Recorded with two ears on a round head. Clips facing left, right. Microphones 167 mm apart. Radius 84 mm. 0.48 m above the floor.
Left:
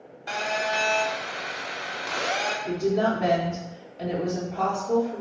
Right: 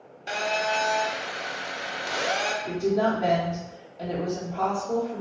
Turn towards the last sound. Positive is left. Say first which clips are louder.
# even
turn(degrees=5)  # may be behind; listen again after turning